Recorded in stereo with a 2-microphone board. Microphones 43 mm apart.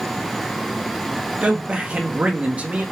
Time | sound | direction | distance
1.4 | a man speaking | 30° right (ahead or behind) | 0.8 m